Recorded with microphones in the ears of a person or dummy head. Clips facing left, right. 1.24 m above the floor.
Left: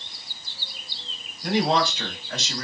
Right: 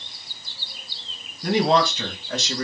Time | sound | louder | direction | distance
1.4 | a man speaking | right 3 dB | 65° right (ahead or behind) | 3 m